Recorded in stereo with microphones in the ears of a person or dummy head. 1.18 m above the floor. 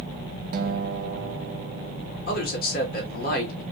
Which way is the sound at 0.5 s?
50° right (ahead or behind).